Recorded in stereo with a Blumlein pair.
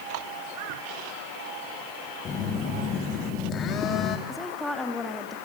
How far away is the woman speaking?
About 3 m.